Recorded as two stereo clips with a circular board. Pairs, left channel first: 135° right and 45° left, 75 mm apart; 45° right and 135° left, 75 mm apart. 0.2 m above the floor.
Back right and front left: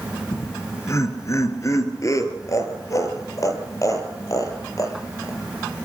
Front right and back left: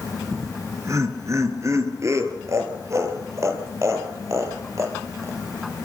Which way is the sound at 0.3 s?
175° left.